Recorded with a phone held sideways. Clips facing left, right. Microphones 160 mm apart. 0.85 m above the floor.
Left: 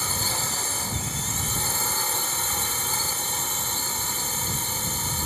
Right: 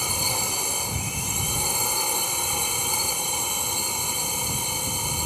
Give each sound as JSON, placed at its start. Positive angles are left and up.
{"t": 0.0, "sound": "a drone", "side_deg": -10}